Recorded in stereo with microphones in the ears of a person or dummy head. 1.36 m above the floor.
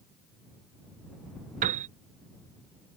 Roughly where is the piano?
Right.